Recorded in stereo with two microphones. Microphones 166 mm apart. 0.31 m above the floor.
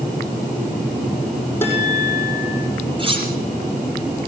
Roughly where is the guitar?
Centre.